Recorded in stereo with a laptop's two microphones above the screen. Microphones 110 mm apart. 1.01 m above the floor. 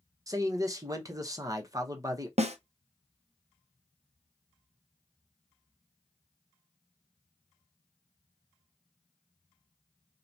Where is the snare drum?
65° right (ahead or behind), 0.5 m.